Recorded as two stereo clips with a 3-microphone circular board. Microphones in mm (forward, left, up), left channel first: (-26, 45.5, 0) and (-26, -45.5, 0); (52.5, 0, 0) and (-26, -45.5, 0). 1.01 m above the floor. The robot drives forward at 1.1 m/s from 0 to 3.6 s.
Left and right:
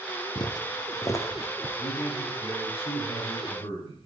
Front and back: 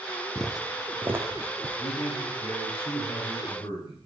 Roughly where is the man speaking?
Ahead left.